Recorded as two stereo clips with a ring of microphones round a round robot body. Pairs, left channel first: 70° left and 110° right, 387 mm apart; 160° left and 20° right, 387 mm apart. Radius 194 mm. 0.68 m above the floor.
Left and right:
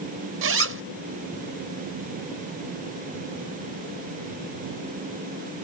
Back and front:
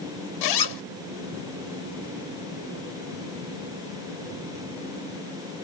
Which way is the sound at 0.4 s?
170° right.